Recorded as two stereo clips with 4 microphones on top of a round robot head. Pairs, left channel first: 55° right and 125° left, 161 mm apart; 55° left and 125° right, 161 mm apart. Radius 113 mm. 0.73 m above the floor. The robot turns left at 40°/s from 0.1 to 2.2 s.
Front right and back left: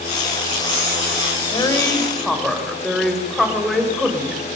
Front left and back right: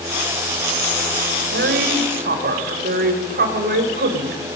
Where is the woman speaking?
115° right, 4.5 m; by 4.4 s 145° right, 4.5 m.